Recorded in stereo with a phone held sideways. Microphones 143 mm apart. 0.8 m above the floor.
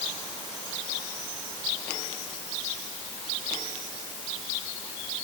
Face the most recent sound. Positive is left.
No sound to turn to.